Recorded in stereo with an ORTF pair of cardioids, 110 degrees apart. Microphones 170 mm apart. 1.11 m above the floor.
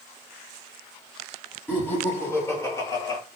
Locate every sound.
1.7 s laughter: 10° left, 2.5 m; by 3.2 s 20° left, 1.5 m